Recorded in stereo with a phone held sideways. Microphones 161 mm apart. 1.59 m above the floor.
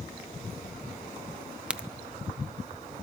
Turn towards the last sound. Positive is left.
turn(degrees=-5)  # may be behind; listen again after turning